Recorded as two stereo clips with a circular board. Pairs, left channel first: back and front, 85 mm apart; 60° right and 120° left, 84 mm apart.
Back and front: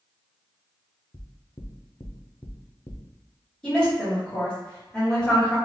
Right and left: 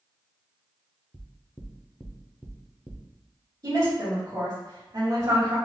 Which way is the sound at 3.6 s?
105° left.